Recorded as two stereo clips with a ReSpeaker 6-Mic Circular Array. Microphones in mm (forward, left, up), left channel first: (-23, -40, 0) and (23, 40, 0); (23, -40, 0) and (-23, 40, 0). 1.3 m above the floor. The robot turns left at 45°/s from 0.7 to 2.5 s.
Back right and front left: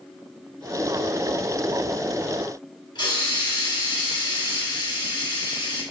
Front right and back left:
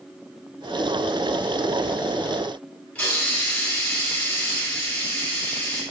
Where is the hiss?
130° right, 1.8 m.